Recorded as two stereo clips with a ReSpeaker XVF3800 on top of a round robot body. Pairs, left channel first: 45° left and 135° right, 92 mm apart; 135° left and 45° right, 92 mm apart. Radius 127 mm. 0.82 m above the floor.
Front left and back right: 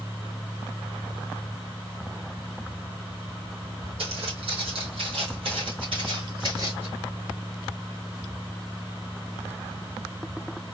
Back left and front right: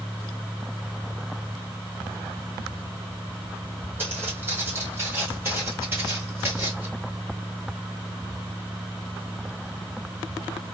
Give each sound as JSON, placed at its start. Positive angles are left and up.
{"t": 4.0, "sound": "footsteps", "azimuth_deg": -110, "distance_m": 2.5}